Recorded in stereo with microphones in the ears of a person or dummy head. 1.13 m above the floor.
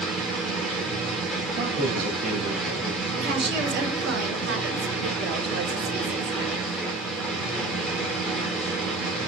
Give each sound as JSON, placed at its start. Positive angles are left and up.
{"t": 0.0, "sound": "a machine running", "side_deg": 0, "distance_m": 3.0}
{"t": 1.6, "sound": "a man speaking", "side_deg": -40, "distance_m": 2.5}
{"t": 3.2, "sound": "a woman speaking", "side_deg": -60, "distance_m": 5.5}